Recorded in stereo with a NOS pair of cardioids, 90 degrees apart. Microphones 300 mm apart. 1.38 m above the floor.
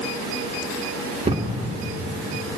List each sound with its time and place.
1.2 s a thud: 20° right, 2 m